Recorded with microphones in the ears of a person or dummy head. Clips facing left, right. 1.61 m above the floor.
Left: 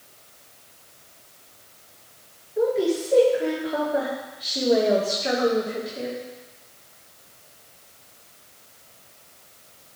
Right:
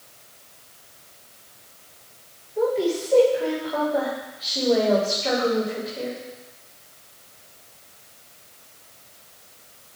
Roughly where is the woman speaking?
Left.